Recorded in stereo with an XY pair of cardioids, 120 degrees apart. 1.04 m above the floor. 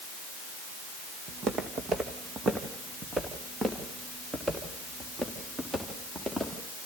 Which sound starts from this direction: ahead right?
Footsteps, at 1.3 s.